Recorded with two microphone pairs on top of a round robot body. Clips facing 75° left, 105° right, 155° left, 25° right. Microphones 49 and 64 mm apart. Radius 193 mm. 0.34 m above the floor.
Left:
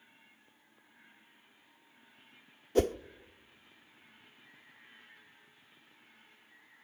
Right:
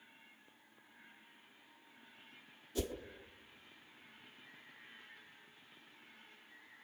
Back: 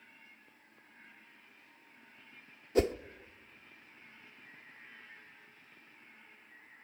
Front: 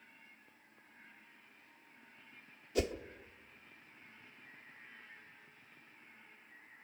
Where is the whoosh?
100° left, 0.8 m.